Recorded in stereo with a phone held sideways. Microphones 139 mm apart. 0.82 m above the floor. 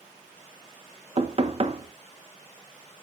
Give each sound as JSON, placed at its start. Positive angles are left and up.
{"t": 1.2, "sound": "knocking", "side_deg": -45, "distance_m": 0.8}